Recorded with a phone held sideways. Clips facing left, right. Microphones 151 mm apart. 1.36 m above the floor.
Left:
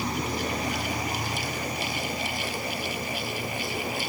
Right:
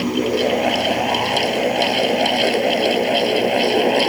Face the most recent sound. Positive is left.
turn(degrees=-75)  # may be behind; listen again after turning